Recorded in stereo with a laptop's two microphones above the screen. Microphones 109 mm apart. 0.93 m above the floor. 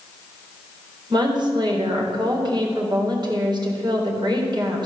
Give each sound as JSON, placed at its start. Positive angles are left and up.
{"t": 1.1, "sound": "a woman speaking", "side_deg": -40, "distance_m": 3.5}